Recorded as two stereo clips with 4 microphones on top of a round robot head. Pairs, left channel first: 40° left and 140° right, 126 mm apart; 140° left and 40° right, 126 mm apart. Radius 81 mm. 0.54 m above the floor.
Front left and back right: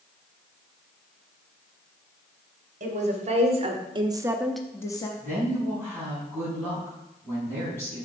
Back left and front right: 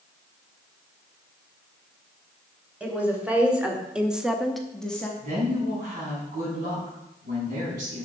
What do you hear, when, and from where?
2.8 s a woman speaking: 115° right, 2 m; by 5.1 s 65° left, 1.0 m
5.2 s a woman speaking: 35° right, 4.5 m